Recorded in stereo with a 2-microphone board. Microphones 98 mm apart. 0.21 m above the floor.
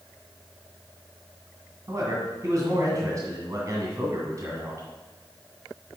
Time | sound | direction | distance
1.9 | a man speaking | 35° right (ahead or behind) | 1.9 m